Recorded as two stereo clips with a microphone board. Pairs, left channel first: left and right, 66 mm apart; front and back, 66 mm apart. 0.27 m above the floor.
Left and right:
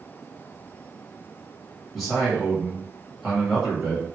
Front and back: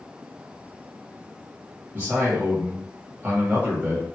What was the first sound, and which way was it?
A man speaking, 175° right.